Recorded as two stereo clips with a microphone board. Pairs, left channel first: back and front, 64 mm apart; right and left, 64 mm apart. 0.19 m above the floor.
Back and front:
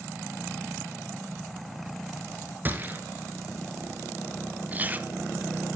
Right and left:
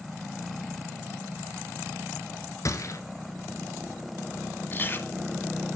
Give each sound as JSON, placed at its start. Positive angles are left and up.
{"t": 2.6, "sound": "a gunshot", "azimuth_deg": -60, "distance_m": 0.9}
{"t": 4.7, "sound": "chewing", "azimuth_deg": -55, "distance_m": 0.6}